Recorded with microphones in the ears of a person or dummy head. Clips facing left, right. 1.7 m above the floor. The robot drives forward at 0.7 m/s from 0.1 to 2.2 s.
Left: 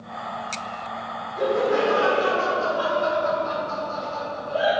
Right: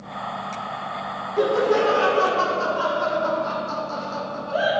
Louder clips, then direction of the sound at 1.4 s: Right 2 dB; 70° right (ahead or behind).